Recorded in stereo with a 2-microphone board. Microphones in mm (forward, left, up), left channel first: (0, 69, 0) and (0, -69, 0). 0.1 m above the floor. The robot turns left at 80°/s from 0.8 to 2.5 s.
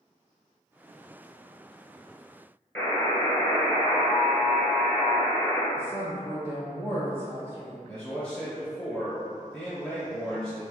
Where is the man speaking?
5° left (ahead or behind), 1.9 m.